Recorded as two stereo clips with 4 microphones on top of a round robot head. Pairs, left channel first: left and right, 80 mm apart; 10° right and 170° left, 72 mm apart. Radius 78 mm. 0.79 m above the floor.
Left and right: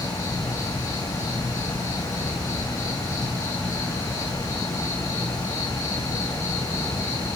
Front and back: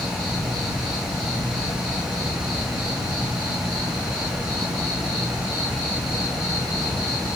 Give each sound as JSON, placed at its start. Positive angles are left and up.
{"t": 0.0, "sound": "an insect", "azimuth_deg": 140, "distance_m": 6.5}